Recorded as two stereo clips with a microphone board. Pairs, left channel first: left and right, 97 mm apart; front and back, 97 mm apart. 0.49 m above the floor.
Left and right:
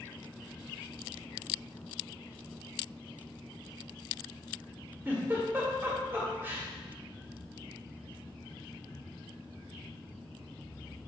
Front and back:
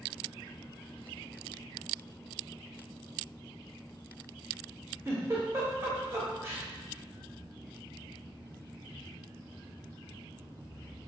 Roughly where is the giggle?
Behind right.